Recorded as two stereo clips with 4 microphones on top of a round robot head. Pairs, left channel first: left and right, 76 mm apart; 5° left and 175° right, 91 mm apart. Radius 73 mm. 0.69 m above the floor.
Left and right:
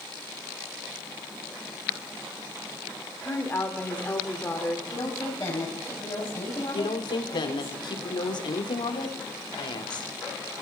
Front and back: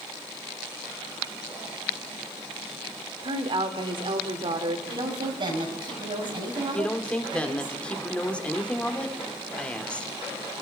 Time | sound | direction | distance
3.2 | a woman speaking | 160° left | 2 m
4.9 | a woman speaking | 155° left | 5 m
6.7 | a woman speaking | 80° left | 2 m